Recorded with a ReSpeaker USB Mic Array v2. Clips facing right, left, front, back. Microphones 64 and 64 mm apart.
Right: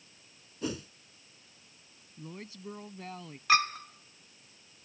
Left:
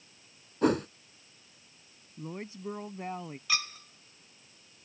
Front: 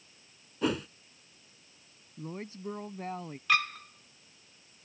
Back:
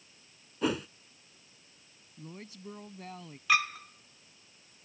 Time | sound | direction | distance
0.6 | a whoosh | 95° left | ?
2.2 | a woman speaking | 35° left | ?
3.5 | a clink | 95° right | ?